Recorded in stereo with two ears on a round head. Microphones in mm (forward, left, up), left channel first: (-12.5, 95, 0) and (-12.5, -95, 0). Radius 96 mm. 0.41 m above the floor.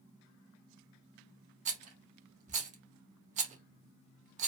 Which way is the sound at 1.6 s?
35° right (ahead or behind).